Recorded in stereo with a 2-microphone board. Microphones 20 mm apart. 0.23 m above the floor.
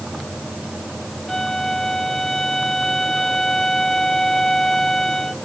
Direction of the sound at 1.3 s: 15° left (ahead or behind).